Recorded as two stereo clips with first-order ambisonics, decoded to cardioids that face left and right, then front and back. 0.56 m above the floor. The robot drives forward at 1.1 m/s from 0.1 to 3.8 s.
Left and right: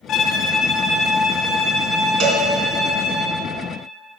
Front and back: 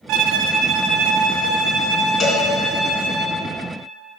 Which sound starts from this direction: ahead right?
A cowbell, at 2.2 s.